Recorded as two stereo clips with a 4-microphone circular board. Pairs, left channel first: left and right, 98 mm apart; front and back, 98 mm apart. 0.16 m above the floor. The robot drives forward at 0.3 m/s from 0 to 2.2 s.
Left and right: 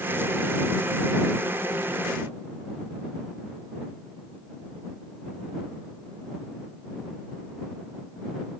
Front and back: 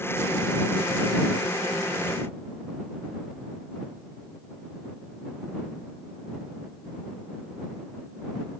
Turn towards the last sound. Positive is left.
No sound to turn to.